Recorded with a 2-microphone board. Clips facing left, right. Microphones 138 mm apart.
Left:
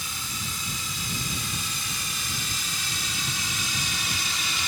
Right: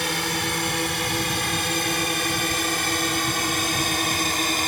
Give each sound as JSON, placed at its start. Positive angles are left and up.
{"t": 0.0, "sound": "a drone", "side_deg": -75}